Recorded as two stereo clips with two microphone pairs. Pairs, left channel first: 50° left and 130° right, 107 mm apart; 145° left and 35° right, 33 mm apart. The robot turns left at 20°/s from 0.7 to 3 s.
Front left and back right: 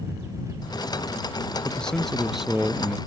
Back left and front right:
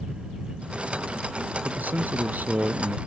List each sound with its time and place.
1.6 s a man speaking: 30° right; by 3.0 s 55° right